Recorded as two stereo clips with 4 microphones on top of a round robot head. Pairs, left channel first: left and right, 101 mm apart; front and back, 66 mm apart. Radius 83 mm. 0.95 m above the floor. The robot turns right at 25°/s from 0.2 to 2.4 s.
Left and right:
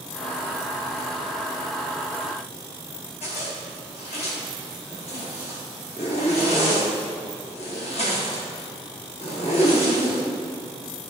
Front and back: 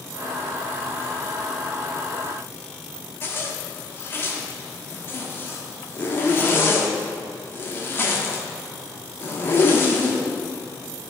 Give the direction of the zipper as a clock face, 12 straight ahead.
10 o'clock.